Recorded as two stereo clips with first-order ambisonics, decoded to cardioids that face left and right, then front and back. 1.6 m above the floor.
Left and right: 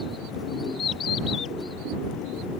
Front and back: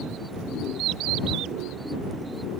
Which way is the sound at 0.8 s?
150° left.